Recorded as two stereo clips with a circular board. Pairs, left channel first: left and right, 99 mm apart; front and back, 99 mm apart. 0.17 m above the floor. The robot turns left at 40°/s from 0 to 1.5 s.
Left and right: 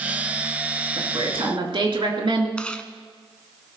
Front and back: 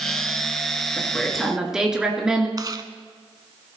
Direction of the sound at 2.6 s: 165° left.